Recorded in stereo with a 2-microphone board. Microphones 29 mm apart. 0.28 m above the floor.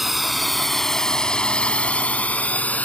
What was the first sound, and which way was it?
A drone, 5° right (ahead or behind).